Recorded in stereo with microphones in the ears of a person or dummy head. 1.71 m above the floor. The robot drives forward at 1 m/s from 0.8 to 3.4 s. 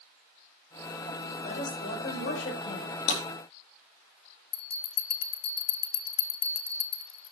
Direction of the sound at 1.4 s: 45° left (ahead or behind).